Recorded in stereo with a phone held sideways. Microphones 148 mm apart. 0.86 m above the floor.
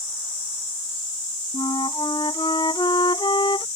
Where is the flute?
35° left (ahead or behind).